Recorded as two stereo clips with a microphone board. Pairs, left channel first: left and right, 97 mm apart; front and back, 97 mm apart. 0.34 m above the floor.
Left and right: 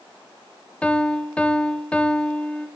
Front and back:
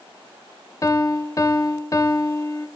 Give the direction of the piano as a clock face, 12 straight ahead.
11 o'clock.